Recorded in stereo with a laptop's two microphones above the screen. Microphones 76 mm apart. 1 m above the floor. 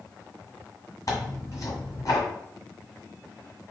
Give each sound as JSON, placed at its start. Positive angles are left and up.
{"t": 1.1, "sound": "tearing paper", "side_deg": 50, "distance_m": 1.7}